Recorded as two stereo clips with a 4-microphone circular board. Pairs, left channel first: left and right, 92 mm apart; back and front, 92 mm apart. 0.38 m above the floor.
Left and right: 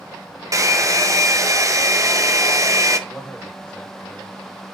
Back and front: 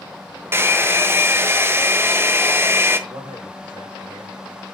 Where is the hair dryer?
50° right, 1.2 m.